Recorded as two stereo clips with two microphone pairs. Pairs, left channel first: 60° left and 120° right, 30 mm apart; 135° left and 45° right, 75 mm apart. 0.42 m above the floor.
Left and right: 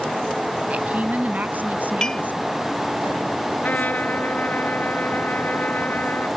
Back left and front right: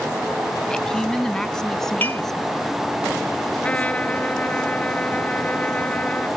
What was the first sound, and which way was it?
A woman speaking, 145° right.